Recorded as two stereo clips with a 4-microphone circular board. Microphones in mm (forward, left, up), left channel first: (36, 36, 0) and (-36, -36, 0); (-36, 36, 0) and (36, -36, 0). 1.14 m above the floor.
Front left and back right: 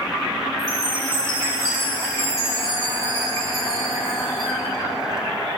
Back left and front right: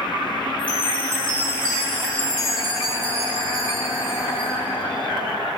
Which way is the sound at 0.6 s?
175° left.